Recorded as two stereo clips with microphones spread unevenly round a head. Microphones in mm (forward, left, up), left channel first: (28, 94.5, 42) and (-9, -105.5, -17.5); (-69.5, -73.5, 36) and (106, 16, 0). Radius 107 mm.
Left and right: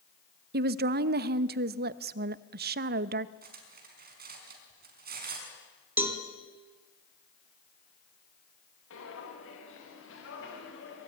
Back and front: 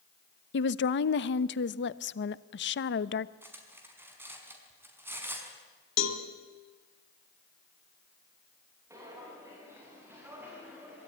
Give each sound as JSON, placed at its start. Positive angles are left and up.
{"t": 0.5, "sound": "a woman speaking", "azimuth_deg": -120, "distance_m": 0.9}
{"t": 3.4, "sound": "cutlery clinking", "azimuth_deg": -55, "distance_m": 5.0}
{"t": 6.0, "sound": "a cowbell", "azimuth_deg": 175, "distance_m": 2.5}
{"t": 8.9, "sound": "footsteps", "azimuth_deg": 105, "distance_m": 7.5}